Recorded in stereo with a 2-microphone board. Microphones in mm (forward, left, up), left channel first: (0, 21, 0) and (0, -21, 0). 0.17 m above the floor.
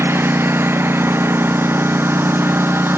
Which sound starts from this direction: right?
A lawn mower, at 0.0 s.